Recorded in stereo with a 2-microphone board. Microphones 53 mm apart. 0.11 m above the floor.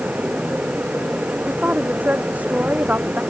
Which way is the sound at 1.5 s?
30° right (ahead or behind).